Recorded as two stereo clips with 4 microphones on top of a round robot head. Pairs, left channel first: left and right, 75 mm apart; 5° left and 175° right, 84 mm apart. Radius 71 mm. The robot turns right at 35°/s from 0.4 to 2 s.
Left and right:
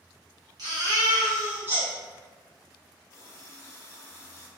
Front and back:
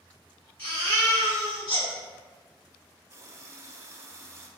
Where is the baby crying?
70° right, 1.9 m; by 1.9 s 25° right, 1.9 m.